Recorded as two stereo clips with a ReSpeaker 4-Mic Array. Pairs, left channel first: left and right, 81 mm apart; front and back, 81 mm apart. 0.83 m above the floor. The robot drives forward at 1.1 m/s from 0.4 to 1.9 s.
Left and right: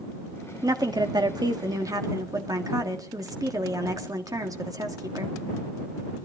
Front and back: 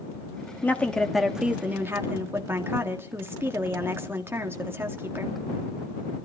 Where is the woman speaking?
60° right, 1.5 m; by 5.3 s 120° right, 1.6 m.